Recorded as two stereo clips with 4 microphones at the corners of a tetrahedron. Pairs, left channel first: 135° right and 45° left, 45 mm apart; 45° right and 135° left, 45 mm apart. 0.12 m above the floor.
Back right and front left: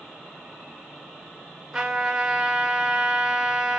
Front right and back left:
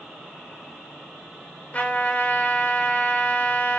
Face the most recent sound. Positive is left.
turn(degrees=-30)